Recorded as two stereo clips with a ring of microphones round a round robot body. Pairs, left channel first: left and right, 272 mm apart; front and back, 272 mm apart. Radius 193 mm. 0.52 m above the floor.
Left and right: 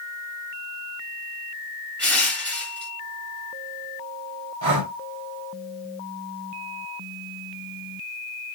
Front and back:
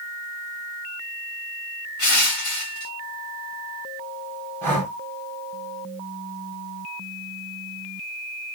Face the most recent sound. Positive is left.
turn(degrees=-85)